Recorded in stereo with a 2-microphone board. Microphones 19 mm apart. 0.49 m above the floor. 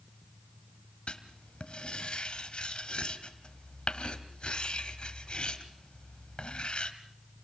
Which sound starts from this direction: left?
Writing, at 1.1 s.